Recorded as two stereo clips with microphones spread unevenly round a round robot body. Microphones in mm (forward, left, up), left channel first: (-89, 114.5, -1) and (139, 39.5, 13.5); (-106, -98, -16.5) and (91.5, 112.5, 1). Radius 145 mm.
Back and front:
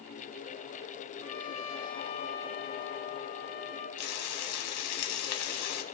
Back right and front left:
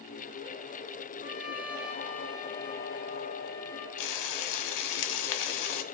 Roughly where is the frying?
Behind.